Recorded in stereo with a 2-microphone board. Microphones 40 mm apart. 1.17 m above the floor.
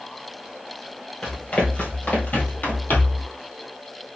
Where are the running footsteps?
30° left (ahead or behind), 1.3 m; by 3.2 s 45° left (ahead or behind), 1.7 m.